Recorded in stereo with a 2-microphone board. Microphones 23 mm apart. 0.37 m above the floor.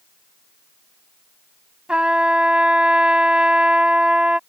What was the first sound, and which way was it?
A trumpet, 60° right (ahead or behind).